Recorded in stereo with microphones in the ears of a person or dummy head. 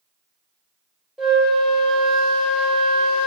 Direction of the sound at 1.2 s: Centre (ahead or behind).